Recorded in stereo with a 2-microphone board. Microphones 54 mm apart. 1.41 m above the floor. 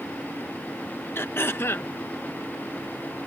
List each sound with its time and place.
1.1 s throat clearing: 45° left (ahead or behind)